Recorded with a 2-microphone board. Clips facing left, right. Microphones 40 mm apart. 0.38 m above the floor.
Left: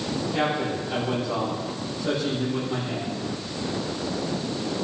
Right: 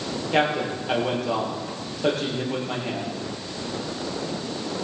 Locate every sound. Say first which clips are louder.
0.3 s a man speaking: right 4 dB; 85° right, 9 m